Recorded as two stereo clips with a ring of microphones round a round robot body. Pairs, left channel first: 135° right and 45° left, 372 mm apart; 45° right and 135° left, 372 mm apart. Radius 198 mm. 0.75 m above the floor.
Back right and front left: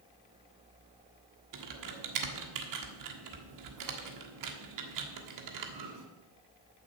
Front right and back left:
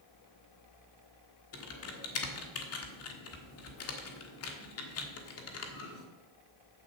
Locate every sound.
1.5 s typing on a keyboard: 5° left, 1.4 m